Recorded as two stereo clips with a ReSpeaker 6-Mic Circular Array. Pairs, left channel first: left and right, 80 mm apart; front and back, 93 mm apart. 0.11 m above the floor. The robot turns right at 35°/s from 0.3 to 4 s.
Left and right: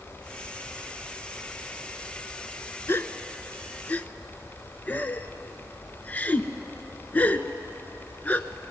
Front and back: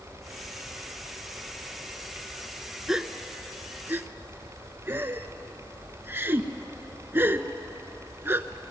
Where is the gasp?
100° left, 0.5 m; by 8.5 s 135° left, 0.5 m.